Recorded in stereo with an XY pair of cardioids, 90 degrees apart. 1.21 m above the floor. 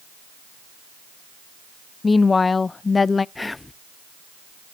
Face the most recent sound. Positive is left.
turn(degrees=20)